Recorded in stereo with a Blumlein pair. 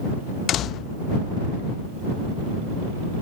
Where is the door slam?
30° left.